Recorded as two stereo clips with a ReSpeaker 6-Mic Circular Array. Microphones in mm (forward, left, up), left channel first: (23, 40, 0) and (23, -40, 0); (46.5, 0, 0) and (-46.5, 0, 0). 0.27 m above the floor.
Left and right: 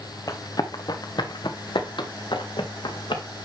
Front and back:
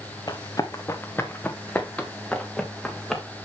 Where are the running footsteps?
45° left, 1.8 m; by 3.2 s 85° left, 3.5 m.